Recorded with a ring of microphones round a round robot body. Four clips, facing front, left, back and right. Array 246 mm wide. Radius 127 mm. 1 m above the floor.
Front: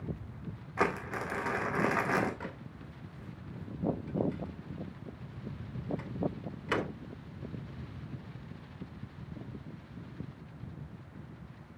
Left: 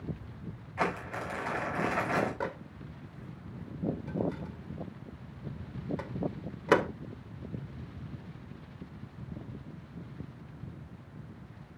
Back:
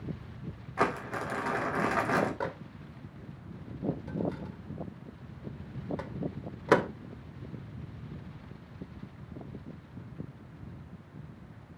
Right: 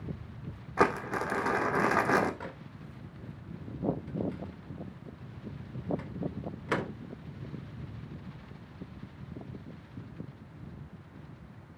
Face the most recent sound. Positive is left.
turn(degrees=150)